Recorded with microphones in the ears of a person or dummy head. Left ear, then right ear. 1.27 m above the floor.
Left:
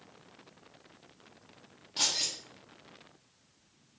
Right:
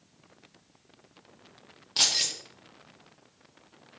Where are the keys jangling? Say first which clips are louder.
Right 5 dB; 35° right (ahead or behind), 0.8 m.